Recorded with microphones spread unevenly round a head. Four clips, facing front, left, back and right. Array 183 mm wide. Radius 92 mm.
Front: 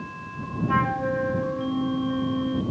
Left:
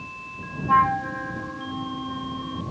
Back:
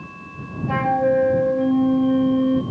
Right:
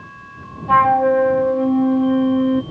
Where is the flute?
120° right.